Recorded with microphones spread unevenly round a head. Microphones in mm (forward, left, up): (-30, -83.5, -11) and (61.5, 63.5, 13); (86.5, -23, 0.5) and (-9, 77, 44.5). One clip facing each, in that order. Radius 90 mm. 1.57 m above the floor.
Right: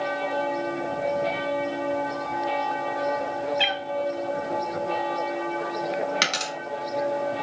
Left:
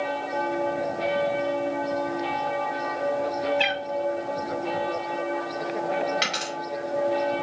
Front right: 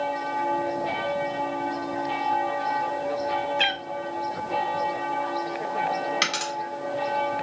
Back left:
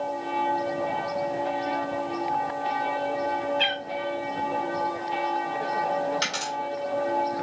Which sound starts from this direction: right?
A dropped coin, at 6.2 s.